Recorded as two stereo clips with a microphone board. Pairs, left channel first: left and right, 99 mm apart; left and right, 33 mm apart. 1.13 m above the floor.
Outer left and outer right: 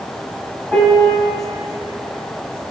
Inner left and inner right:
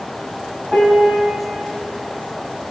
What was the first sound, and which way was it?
A piano, 5° left (ahead or behind).